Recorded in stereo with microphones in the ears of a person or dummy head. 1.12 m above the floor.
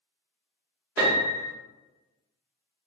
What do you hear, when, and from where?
1.0 s a piano: 15° right (ahead or behind), 0.8 m